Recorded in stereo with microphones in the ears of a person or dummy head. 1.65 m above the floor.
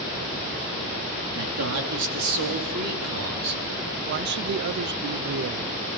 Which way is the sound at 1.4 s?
75° right (ahead or behind).